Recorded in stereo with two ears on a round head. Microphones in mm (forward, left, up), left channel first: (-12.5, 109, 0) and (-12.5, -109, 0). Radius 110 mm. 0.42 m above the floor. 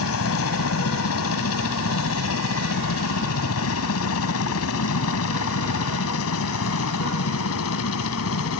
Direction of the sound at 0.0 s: 65° left (ahead or behind).